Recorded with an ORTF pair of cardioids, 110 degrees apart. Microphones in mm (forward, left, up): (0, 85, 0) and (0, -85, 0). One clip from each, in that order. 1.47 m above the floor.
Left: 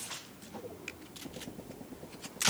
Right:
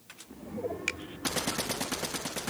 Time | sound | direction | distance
0.9 | a finger snap | 65° right | ?